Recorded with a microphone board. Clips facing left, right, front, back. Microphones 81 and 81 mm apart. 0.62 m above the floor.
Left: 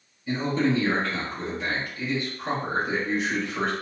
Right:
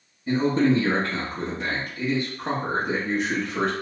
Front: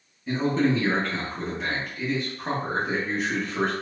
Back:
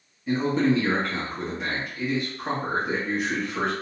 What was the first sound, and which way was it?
A man speaking, 90° right.